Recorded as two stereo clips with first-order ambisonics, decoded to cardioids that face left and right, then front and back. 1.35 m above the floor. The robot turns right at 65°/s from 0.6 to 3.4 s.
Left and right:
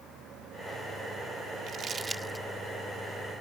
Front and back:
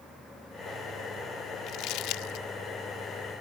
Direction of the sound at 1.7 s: 40° right.